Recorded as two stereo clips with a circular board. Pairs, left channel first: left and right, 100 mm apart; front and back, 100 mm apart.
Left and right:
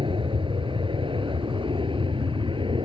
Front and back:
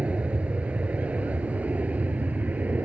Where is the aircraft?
105° right; by 2.8 s 110° right.